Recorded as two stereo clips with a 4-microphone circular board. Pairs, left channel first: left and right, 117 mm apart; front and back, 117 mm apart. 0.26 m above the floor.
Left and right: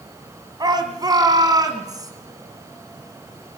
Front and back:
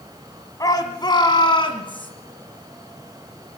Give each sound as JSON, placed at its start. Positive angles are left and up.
{"t": 0.6, "sound": "a shout", "azimuth_deg": -50, "distance_m": 1.7}